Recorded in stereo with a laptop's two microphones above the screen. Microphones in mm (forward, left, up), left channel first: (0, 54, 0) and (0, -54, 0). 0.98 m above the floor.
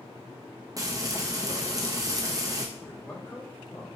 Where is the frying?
35° right (ahead or behind), 0.7 m.